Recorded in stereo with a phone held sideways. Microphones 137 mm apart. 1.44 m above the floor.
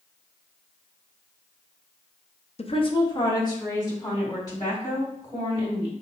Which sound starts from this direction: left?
A woman speaking, at 2.6 s.